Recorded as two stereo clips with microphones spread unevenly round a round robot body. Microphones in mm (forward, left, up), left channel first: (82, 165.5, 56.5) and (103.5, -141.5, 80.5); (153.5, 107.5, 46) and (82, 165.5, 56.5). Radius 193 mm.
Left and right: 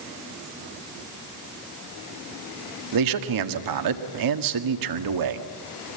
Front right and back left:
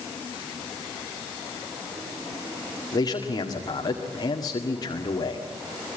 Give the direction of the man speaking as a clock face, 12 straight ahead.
3 o'clock.